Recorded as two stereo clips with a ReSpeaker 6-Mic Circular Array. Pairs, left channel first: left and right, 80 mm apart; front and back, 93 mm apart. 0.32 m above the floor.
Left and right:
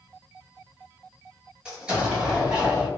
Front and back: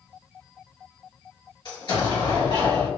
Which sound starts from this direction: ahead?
An explosion, at 1.6 s.